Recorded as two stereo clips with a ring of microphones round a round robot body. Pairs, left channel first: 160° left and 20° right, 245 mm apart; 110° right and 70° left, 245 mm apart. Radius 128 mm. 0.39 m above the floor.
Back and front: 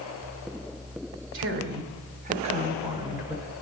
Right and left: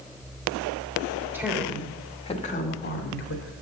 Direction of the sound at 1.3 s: 10° right.